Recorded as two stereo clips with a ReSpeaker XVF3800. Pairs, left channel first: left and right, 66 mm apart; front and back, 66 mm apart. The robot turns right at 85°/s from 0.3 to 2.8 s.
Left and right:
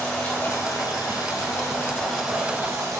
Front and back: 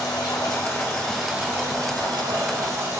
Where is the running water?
15° left, 1.3 m; by 3.0 s 130° right, 1.3 m.